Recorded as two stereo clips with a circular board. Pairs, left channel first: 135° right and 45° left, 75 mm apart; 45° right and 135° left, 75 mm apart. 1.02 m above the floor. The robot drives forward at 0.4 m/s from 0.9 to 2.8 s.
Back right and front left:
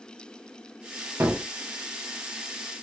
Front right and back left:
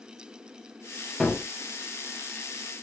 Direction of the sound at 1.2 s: 30° left.